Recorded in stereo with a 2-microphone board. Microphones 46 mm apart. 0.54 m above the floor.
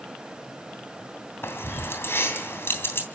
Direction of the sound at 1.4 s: 60° left (ahead or behind).